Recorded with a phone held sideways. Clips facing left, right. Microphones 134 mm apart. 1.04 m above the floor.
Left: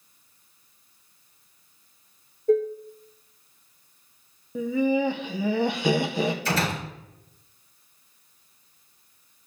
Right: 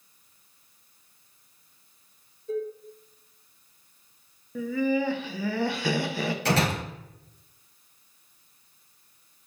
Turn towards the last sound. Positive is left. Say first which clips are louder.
# right 2 dB
turn(degrees=-70)  # may be behind; listen again after turning